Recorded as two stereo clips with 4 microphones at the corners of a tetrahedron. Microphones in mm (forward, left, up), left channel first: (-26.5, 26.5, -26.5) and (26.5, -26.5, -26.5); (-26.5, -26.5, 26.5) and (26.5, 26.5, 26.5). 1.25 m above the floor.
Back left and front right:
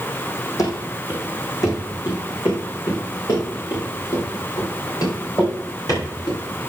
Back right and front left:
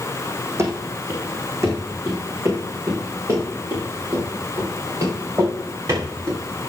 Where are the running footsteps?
100° left, 3.5 m; by 6.4 s 95° left, 11 m.